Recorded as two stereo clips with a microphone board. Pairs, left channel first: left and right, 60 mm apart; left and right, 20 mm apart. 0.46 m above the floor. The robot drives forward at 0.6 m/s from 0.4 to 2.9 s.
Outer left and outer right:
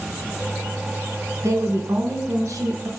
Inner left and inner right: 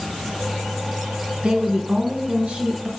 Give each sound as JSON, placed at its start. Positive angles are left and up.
{"t": 1.4, "sound": "a woman speaking", "side_deg": -70, "distance_m": 2.5}